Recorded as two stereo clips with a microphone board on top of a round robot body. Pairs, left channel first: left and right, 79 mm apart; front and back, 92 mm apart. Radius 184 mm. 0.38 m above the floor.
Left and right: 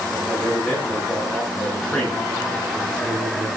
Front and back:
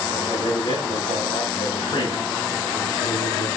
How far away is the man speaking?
About 8.5 m.